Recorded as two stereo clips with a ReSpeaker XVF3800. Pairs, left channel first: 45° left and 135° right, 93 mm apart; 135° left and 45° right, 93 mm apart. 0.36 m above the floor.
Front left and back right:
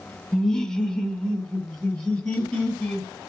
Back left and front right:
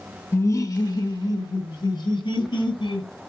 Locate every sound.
0.3 s laughter: 125° left, 1.0 m